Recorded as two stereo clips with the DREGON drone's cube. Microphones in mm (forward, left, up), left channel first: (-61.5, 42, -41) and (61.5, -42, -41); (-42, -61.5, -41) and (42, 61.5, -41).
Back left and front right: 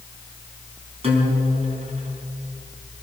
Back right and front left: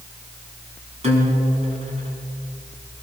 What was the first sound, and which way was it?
A guitar, 15° left.